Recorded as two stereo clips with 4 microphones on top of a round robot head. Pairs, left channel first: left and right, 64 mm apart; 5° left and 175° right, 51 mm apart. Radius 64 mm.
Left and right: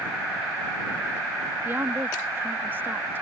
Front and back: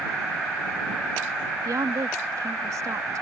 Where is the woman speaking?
155° right.